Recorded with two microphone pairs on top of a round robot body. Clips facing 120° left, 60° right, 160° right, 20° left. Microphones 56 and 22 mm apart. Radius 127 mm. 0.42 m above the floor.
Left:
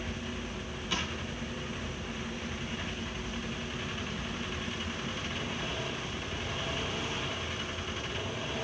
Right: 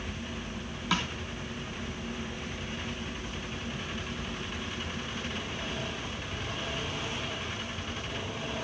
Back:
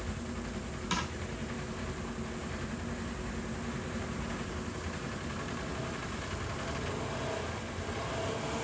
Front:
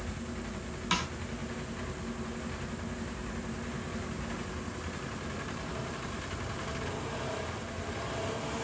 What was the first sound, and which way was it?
A snare drum, 50° right.